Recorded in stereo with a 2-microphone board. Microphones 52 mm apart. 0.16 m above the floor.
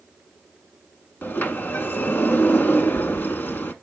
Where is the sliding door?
35° left (ahead or behind), 0.7 m.